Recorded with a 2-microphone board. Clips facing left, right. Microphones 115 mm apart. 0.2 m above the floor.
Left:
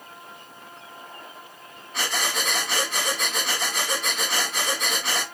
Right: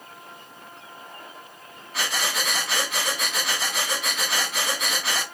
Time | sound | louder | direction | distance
1.9 | breathing | even | 5° right (ahead or behind) | 1.3 m